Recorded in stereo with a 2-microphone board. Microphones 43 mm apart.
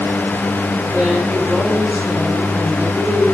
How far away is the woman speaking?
About 5 m.